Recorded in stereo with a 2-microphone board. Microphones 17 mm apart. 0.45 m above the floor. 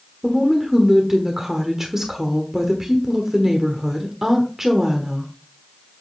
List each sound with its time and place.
0.2 s a woman speaking: 25° right (ahead or behind), 1.2 m